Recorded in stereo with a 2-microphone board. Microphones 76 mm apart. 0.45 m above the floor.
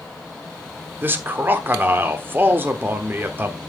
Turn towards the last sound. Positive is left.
turn(degrees=-25)  # may be behind; listen again after turning